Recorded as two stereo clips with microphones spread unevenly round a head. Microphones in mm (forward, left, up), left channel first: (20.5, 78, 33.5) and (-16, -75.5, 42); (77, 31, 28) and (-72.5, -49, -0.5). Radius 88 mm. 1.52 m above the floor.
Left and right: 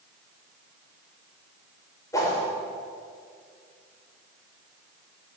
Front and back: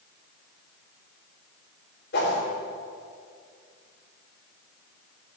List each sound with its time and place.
2.1 s a whoosh: 5° left, 3.5 m